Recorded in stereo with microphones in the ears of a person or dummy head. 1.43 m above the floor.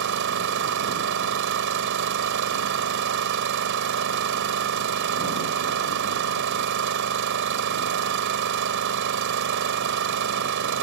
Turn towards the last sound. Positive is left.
turn(degrees=-60)  # may be behind; listen again after turning